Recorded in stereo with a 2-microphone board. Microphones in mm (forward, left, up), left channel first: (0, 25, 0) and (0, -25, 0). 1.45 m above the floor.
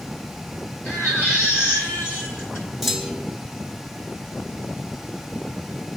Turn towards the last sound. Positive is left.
turn(degrees=0)  # may be behind; listen again after turning